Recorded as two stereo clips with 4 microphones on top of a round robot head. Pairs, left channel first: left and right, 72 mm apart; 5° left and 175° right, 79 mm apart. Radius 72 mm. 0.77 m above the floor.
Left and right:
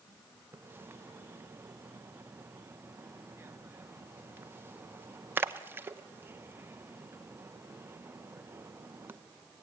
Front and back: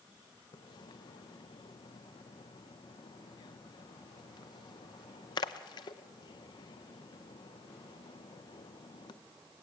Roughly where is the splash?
Ahead right.